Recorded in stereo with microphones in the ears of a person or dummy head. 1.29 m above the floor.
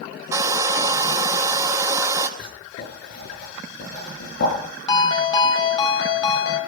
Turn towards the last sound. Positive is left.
turn(degrees=25)  # may be behind; listen again after turning